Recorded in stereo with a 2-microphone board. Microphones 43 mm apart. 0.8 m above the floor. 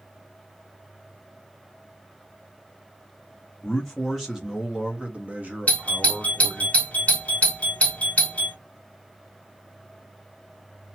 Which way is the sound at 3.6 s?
10° left (ahead or behind).